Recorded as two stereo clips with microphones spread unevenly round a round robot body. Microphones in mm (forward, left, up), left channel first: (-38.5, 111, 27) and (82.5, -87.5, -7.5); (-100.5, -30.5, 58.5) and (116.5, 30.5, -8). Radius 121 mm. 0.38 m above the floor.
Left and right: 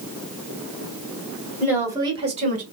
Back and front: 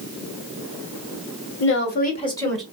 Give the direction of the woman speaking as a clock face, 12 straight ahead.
4 o'clock.